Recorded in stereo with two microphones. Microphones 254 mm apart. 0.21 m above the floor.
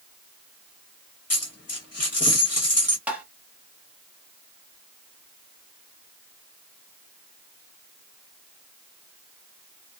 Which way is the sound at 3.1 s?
5° right (ahead or behind).